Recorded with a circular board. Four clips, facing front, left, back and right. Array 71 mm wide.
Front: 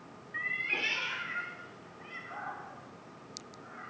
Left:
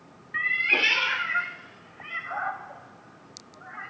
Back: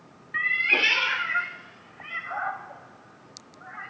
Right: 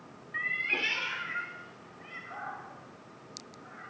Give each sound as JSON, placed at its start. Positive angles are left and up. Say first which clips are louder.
{"t": 0.3, "sound": "a cat meowing", "louder": "left 7 dB, back 10 dB", "azimuth_deg": 150, "distance_m": 0.5}